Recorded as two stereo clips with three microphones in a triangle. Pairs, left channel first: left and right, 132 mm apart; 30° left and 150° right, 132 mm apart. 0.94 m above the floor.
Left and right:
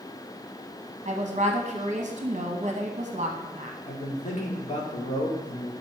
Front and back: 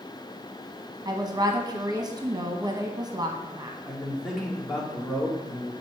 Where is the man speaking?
125° left, 2 m.